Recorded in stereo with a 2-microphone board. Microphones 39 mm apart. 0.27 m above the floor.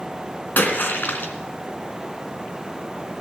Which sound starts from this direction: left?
A splash, at 0.6 s.